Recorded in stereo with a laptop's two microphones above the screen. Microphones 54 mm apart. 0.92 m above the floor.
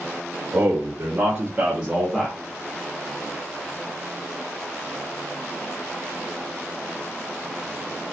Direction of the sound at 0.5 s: 60° right (ahead or behind).